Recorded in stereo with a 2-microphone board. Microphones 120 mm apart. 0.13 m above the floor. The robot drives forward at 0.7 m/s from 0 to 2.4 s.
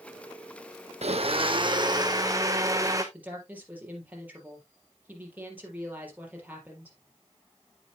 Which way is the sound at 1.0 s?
65° right (ahead or behind).